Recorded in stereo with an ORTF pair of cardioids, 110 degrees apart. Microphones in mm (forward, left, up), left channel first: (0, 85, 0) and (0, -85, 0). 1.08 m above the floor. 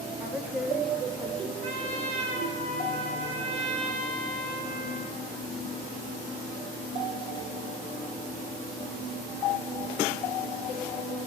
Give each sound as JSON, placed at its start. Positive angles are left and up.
{"t": 0.2, "sound": "a woman speaking", "azimuth_deg": -15, "distance_m": 2.0}
{"t": 1.6, "sound": "a trumpet", "azimuth_deg": -45, "distance_m": 3.5}